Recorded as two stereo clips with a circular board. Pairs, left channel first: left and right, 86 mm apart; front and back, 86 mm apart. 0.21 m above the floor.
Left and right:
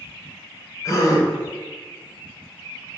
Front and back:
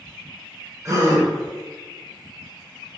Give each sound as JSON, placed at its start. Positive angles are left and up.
{"t": 0.8, "sound": "a gasp", "azimuth_deg": 135, "distance_m": 0.7}